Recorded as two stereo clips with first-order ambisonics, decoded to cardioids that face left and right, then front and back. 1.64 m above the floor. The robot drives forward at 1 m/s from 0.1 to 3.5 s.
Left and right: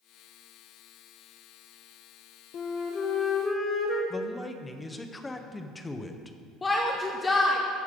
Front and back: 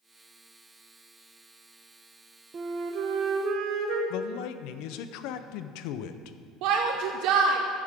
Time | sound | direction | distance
2.5 | a flute | 125° left | 0.7 m
4.1 | a man speaking | 10° left | 0.7 m
6.6 | a shout | 165° left | 0.8 m